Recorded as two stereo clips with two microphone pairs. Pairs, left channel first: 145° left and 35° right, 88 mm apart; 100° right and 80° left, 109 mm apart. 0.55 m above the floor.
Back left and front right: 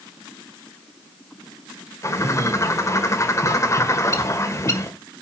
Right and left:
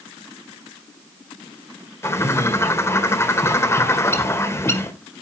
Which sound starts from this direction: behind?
A bird, at 2.0 s.